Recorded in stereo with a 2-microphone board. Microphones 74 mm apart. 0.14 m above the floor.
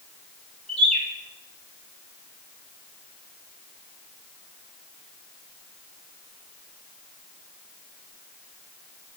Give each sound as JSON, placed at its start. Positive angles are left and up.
{"t": 0.7, "sound": "a bird", "side_deg": 10, "distance_m": 1.7}